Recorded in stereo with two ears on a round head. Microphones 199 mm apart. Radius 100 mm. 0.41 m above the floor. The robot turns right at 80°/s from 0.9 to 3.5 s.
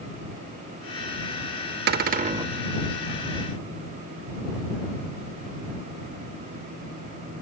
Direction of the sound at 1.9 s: 75° right.